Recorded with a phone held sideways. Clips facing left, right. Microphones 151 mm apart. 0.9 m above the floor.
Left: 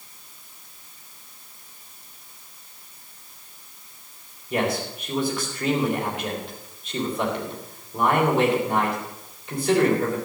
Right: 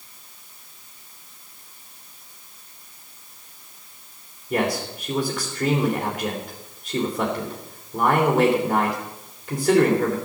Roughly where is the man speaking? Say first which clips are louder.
Right 1 dB; right.